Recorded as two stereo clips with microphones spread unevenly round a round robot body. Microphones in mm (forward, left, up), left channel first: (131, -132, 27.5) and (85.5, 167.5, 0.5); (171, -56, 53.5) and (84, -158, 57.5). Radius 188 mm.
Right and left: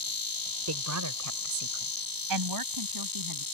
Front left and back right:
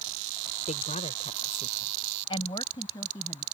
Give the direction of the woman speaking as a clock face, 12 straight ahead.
9 o'clock.